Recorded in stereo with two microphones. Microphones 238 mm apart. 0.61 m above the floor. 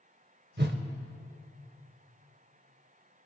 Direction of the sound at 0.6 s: 45° right (ahead or behind).